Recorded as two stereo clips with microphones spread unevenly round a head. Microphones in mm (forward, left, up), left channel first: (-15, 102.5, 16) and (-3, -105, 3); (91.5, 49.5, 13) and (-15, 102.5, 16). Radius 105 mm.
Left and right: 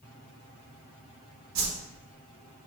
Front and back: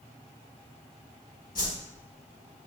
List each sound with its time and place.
1.6 s a whoosh: 80° right, 1.4 m